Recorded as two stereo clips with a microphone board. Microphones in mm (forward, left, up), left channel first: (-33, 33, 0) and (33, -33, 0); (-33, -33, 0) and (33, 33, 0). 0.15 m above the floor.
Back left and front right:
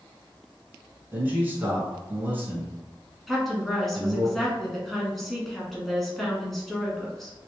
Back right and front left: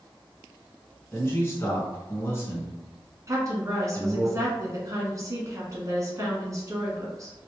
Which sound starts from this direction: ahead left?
A woman speaking, at 3.3 s.